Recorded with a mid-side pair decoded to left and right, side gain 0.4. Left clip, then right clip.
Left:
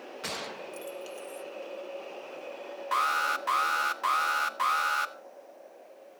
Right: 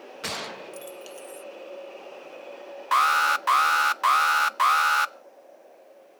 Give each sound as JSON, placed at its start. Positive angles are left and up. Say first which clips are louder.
{"t": 0.2, "sound": "a gunshot", "louder": "right 4 dB", "azimuth_deg": -35, "distance_m": 0.8}
{"t": 2.9, "sound": "an alarm", "louder": "right 7 dB", "azimuth_deg": -55, "distance_m": 0.9}